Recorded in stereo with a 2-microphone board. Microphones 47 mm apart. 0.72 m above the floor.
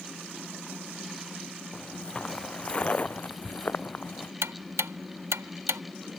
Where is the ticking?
70° right (ahead or behind).